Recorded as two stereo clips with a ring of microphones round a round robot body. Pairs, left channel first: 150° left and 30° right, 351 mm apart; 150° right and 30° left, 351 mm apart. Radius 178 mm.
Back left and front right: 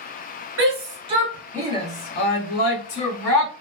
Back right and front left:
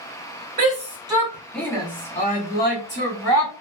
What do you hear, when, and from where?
0.6 s a shout: 20° right, 0.8 m; by 3.5 s 160° left, 1.3 m